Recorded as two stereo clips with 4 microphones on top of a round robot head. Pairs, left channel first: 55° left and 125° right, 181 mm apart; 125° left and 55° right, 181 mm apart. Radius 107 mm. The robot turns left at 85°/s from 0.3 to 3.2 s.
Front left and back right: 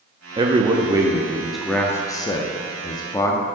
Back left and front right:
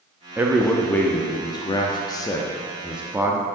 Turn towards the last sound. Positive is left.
turn(degrees=5)